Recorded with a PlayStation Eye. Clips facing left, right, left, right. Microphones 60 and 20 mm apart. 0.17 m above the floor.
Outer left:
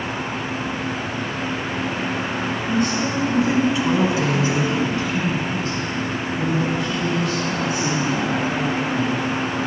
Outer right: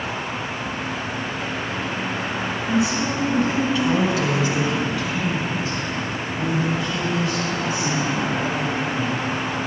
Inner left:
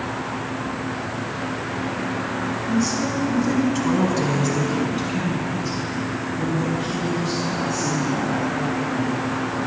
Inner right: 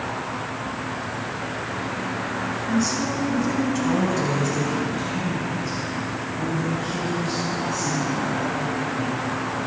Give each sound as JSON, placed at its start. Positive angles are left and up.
{"t": 2.7, "sound": "a woman speaking", "side_deg": -10, "distance_m": 1.6}